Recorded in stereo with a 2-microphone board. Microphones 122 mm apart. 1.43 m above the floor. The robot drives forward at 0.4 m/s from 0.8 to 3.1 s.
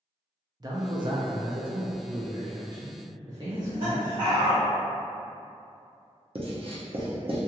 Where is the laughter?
45° right (ahead or behind), 1.2 m.